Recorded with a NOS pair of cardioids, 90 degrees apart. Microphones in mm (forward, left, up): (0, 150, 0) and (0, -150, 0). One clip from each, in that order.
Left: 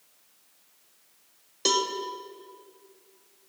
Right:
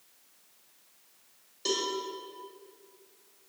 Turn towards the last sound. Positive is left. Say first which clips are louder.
# left 6 dB
turn(degrees=60)